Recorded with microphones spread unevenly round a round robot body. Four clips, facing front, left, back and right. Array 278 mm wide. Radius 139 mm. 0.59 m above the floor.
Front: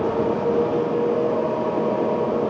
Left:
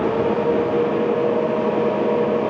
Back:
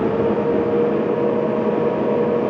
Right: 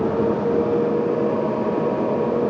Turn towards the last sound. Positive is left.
No sound to turn to.